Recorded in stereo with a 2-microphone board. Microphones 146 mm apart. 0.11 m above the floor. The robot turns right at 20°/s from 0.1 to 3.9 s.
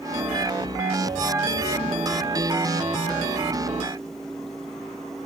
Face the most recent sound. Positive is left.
No sound to turn to.